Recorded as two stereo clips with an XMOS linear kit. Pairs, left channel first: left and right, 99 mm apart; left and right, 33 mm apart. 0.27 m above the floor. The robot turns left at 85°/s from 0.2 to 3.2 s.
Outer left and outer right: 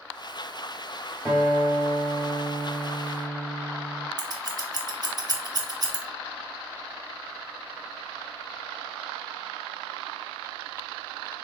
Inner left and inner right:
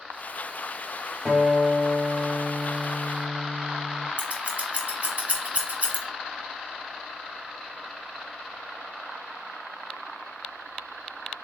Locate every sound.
1.2 s a guitar: 10° left, 1.7 m; by 4.1 s 155° right, 1.7 m
4.2 s scissors: 45° right (ahead or behind), 0.8 m